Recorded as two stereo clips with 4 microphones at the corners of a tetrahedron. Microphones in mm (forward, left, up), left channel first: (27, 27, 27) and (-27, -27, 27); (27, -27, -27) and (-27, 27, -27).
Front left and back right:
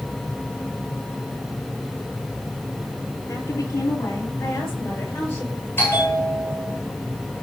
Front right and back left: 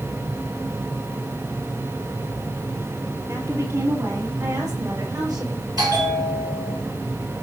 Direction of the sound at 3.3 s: 90° left.